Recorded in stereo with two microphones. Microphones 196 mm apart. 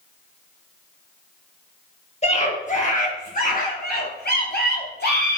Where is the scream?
35° left (ahead or behind), 3 m; by 5.4 s 65° left (ahead or behind), 3.5 m.